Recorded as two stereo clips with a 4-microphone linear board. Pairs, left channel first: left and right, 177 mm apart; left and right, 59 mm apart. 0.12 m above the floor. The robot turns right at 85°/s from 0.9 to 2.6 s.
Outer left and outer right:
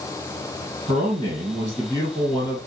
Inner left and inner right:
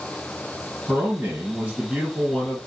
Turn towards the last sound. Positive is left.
turn(degrees=35)